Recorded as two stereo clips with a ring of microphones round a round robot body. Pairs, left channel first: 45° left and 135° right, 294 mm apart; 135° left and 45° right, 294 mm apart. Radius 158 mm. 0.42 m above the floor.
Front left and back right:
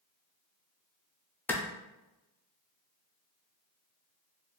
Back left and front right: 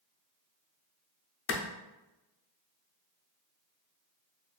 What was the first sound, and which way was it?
A clap, 125° left.